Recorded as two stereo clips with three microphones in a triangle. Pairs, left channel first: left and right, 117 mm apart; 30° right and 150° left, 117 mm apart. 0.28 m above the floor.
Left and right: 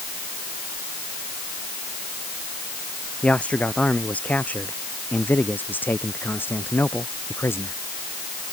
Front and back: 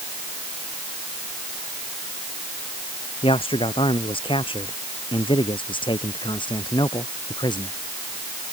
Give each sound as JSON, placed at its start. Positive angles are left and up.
{"t": 3.2, "sound": "a man speaking", "azimuth_deg": 10}